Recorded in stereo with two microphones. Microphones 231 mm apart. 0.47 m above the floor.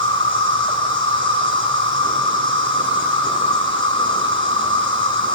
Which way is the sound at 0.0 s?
60° right (ahead or behind).